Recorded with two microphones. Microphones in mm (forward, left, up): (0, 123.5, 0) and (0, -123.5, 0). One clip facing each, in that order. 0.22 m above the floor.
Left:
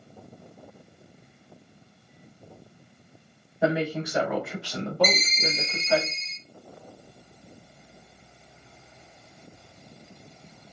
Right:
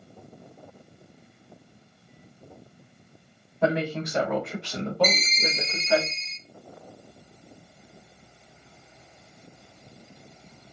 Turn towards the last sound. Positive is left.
turn(degrees=-25)  # may be behind; listen again after turning